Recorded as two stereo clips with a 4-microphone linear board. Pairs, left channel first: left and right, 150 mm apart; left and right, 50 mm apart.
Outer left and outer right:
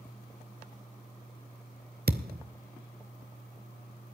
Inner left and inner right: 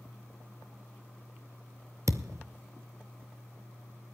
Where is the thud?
75° right (ahead or behind), 0.9 m.